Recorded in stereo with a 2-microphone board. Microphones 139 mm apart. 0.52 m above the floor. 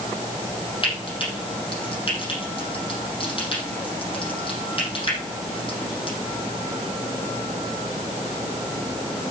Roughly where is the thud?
No thud in this recording.